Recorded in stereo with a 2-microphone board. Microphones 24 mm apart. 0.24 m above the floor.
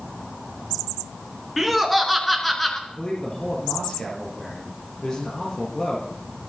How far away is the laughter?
About 4 m.